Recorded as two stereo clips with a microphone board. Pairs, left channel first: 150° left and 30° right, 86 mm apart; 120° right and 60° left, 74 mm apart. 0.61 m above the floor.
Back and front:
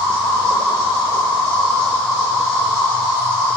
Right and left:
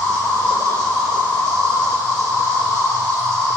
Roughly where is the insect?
Behind.